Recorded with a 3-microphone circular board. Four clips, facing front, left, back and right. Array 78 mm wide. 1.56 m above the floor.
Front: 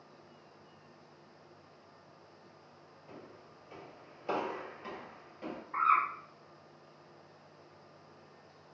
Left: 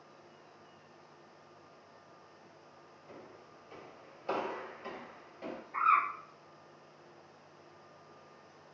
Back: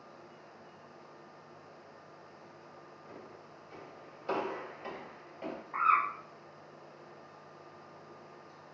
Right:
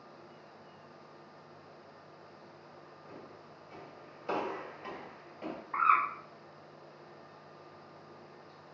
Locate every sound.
3.1 s footsteps: 15° left, 1.9 m; by 5.6 s 140° right, 1.8 m
5.7 s a bird: 95° right, 1.2 m